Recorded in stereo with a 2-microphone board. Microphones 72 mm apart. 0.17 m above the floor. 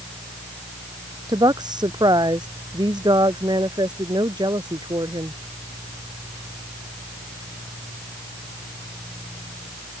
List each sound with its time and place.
1.3 s a woman speaking: 75° right (ahead or behind); by 5.4 s 85° right